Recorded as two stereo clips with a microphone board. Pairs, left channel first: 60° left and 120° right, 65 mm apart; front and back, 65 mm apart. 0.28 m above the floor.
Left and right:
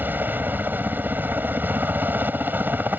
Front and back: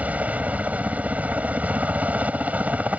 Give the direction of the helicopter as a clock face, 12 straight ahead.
5 o'clock.